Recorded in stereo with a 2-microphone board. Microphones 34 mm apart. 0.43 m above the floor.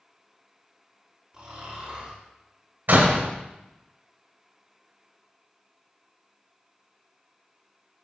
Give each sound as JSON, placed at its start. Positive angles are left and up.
{"t": 1.3, "sound": "snoring", "side_deg": -20, "distance_m": 4.5}
{"t": 2.9, "sound": "a door slam", "side_deg": -60, "distance_m": 1.4}